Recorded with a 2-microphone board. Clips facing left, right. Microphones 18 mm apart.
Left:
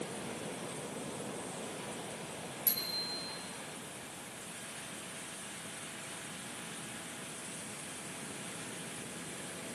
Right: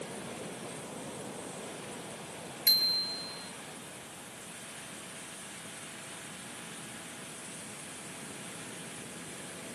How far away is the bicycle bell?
About 4.5 m.